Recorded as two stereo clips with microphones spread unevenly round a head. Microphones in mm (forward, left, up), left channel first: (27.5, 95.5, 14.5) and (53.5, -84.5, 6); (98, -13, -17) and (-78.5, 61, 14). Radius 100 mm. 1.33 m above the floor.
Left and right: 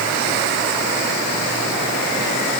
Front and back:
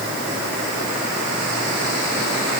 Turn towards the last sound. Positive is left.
No sound to turn to.